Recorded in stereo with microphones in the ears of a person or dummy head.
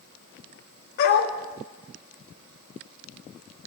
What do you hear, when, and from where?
1.0 s a dog barking: 55° left (ahead or behind), 1.9 m